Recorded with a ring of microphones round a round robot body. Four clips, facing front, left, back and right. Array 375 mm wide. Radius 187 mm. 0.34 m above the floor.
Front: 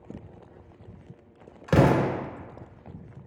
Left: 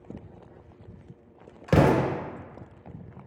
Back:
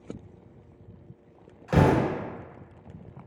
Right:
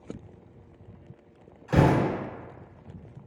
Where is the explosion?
60° left, 0.5 m.